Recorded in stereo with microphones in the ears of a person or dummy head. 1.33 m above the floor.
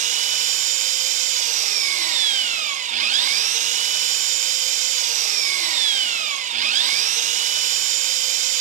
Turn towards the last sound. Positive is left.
turn(degrees=-40)  # may be behind; listen again after turning